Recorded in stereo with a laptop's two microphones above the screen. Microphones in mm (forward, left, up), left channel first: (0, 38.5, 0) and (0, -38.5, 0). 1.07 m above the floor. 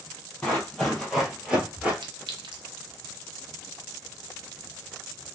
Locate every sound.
0.4 s running footsteps: 10° left (ahead or behind), 1.9 m; by 1.9 s 20° right (ahead or behind), 1.4 m
2.0 s a clink: 85° right, 0.6 m